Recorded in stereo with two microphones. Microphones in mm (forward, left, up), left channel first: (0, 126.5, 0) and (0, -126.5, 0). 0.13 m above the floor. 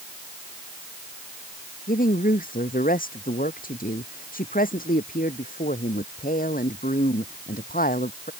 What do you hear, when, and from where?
1.9 s a woman speaking: 35° left (ahead or behind)